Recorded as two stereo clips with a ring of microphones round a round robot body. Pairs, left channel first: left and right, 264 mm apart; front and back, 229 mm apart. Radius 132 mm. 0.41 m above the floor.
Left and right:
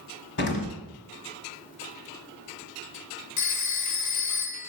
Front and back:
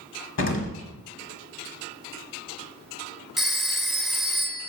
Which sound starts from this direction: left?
A phone ringing, at 3.4 s.